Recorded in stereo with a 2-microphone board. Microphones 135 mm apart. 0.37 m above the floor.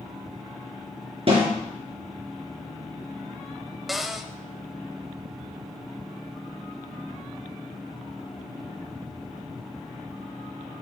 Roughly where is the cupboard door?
Centre.